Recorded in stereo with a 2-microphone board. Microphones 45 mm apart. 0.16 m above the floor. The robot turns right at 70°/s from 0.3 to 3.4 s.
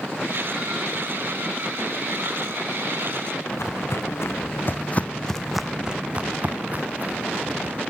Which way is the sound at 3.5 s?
80° left.